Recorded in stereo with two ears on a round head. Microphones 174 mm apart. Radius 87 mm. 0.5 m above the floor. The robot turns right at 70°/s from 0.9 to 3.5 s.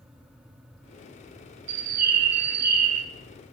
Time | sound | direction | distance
1.7 | a bird | 140° right | 1.3 m